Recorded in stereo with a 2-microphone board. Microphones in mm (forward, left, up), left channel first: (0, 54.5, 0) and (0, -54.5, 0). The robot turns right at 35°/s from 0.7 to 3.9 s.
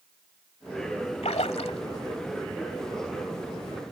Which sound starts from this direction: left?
A splash, at 1.2 s.